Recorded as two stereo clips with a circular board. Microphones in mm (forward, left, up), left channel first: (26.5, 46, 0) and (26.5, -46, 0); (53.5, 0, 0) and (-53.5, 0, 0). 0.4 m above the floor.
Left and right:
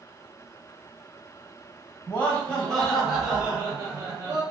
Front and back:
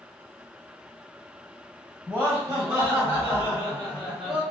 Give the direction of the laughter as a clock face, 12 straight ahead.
7 o'clock.